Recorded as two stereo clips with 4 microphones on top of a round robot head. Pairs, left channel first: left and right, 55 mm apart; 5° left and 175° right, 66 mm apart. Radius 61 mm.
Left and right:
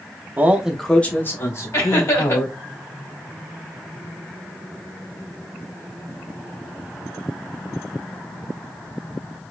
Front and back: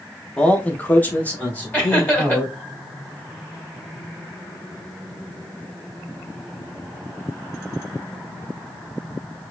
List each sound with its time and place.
0.4 s a man speaking: 60° right, 0.9 m; by 2.6 s 75° left, 2.5 m
1.7 s laughter: 65° left, 2.5 m